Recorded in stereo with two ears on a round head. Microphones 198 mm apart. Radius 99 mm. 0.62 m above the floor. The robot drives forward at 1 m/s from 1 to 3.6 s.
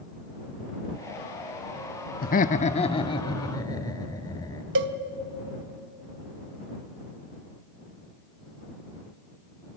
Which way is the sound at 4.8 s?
55° right (ahead or behind).